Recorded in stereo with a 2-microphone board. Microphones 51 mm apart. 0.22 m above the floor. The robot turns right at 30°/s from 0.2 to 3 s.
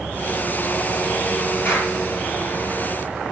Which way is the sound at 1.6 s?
45° left (ahead or behind).